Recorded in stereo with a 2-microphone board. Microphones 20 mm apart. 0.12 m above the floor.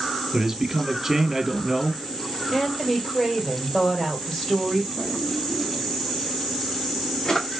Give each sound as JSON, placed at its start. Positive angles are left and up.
{"t": 0.3, "sound": "a man speaking", "side_deg": -25, "distance_m": 1.5}
{"t": 2.5, "sound": "a woman speaking", "side_deg": 10, "distance_m": 3.0}
{"t": 5.0, "sound": "a drawer", "side_deg": 35, "distance_m": 1.8}